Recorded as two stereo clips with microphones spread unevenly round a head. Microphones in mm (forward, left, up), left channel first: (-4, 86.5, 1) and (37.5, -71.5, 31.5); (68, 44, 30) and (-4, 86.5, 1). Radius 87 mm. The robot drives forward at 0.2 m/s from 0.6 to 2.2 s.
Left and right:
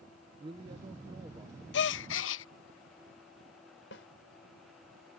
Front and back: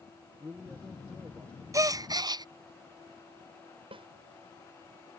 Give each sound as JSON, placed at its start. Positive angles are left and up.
{"t": 0.4, "sound": "a man speaking", "azimuth_deg": -140}
{"t": 1.7, "sound": "a gasp", "azimuth_deg": 90}
{"t": 3.9, "sound": "a snare drum", "azimuth_deg": 130}